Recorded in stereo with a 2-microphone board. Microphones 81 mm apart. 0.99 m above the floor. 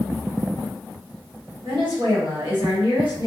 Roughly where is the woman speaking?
Right.